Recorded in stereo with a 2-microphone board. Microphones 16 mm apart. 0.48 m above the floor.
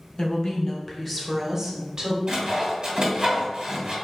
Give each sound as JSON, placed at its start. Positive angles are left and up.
{"t": 0.2, "sound": "a woman speaking", "side_deg": 45, "distance_m": 1.0}
{"t": 2.3, "sound": "sawing", "side_deg": -45, "distance_m": 1.7}